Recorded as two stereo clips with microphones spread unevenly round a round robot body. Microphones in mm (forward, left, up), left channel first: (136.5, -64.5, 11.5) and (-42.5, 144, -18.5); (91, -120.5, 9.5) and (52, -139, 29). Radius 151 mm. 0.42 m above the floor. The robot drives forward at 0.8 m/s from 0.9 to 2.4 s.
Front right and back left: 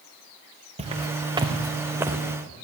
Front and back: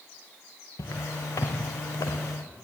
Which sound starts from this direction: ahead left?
Footsteps, at 0.8 s.